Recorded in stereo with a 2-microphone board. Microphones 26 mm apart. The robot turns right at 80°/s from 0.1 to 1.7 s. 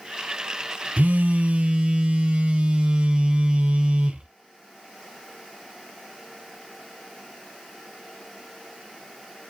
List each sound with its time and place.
1.0 s a phone buzzing: 100° right, 0.6 m; by 4.3 s 45° right, 0.6 m